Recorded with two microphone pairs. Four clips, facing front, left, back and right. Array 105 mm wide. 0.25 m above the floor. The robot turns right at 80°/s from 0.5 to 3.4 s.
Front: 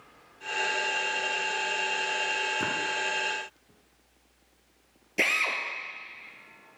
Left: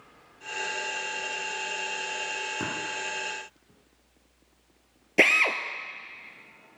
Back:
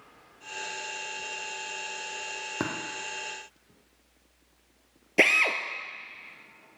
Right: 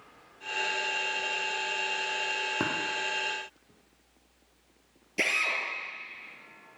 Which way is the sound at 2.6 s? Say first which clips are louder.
Right 3 dB, back 5 dB; 155° right.